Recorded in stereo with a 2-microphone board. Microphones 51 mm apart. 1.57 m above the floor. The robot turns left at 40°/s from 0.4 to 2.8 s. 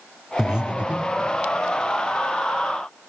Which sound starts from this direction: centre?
Breathing, at 0.4 s.